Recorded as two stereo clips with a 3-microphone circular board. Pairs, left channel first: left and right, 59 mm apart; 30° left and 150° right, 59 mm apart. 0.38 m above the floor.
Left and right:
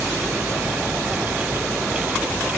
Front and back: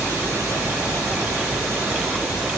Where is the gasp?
I don't hear a gasp.